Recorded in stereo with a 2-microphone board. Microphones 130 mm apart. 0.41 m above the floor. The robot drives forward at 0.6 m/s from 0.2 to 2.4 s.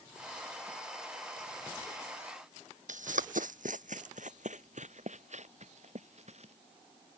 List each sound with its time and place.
2.9 s running footsteps: 70° right (ahead or behind); by 6.5 s 55° right (ahead or behind)